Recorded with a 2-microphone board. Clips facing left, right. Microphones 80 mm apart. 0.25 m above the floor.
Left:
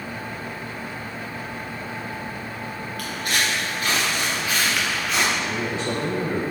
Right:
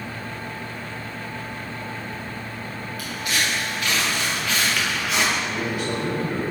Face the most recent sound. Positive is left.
turn(degrees=30)  # may be behind; listen again after turning